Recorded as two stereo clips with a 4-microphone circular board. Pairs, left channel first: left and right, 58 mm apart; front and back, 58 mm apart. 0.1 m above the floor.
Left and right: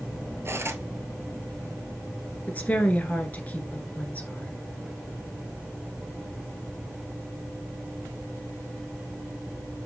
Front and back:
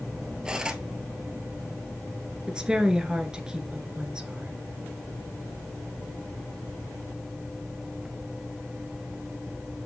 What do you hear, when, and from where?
0.5 s cutlery clinking: 110° right, 1.0 m
2.5 s a woman speaking: 120° left, 1.4 m